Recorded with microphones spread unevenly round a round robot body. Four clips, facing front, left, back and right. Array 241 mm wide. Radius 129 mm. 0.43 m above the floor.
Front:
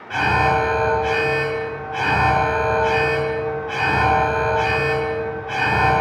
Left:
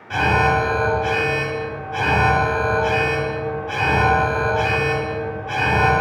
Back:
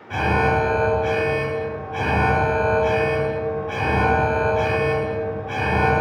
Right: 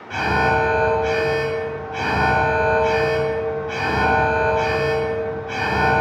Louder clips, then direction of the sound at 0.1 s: Left 1 dB, front 2 dB; 135° left.